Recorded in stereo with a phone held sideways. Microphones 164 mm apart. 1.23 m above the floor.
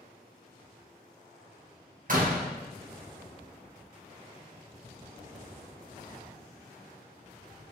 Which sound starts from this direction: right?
A door slam, at 2.1 s.